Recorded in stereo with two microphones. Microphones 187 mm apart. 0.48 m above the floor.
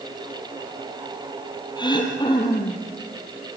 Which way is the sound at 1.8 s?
25° left (ahead or behind).